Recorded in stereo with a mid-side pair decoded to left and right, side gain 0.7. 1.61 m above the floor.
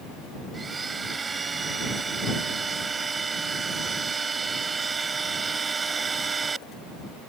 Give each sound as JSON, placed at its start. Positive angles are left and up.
{"t": 0.5, "sound": "a blender", "azimuth_deg": -20}